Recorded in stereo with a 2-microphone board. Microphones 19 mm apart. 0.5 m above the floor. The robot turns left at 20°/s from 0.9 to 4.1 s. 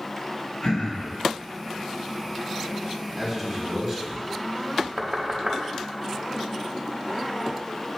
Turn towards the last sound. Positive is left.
turn(degrees=-50)  # may be behind; listen again after turning